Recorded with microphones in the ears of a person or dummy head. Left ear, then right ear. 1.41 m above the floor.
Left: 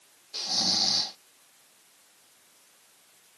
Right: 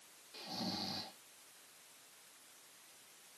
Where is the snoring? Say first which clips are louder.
Left 17 dB; 40° left (ahead or behind).